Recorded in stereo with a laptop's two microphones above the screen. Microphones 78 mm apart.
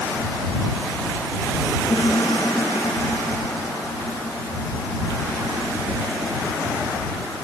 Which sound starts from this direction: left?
A piano, at 1.9 s.